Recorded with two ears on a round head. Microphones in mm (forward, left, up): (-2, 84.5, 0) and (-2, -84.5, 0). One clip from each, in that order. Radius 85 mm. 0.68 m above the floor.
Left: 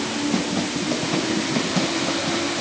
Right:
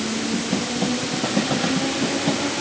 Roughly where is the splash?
No splash in this recording.